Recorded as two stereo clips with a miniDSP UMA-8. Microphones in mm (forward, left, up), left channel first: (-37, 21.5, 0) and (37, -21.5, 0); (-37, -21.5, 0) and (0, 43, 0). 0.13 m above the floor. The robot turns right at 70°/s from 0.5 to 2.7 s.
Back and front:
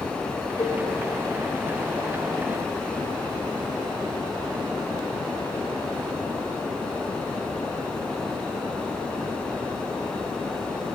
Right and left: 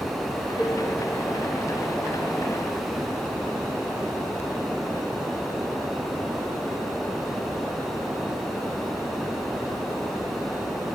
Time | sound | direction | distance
0.6 | dishes clattering | 160° left | 1.4 m